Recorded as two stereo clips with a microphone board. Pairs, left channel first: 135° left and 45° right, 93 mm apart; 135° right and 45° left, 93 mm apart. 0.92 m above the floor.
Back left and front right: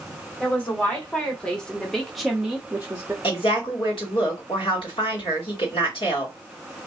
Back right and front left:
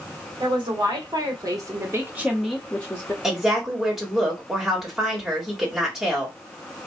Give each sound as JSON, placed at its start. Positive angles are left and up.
{"t": 0.4, "sound": "a woman speaking", "azimuth_deg": 65, "distance_m": 1.5}
{"t": 3.2, "sound": "a woman speaking", "azimuth_deg": 130, "distance_m": 1.6}